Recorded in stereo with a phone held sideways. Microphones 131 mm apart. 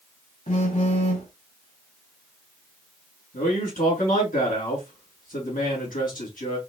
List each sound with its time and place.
0.5 s a phone buzzing: 70° left (ahead or behind), 3 m
3.3 s a man speaking: 85° left, 3.5 m